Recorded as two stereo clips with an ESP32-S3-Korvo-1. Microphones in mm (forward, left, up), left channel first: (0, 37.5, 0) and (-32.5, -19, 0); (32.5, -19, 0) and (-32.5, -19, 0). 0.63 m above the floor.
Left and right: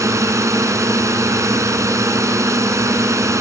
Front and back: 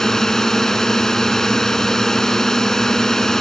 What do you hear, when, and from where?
0.0 s a drone: 80° right